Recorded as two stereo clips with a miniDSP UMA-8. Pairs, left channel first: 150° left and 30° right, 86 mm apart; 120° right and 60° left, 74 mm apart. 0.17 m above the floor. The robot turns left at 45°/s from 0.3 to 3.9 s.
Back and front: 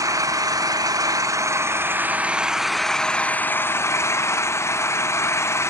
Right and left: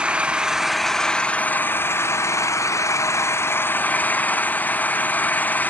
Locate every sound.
0.0 s an engine running: 10° right, 0.8 m; by 5.7 s 170° right, 0.8 m